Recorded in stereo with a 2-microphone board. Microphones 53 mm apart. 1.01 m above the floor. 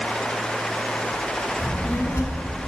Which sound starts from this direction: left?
A child speaking, at 1.6 s.